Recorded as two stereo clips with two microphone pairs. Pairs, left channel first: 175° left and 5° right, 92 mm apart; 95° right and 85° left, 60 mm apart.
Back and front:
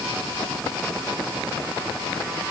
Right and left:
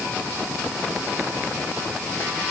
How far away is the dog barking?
No dog barking in this recording.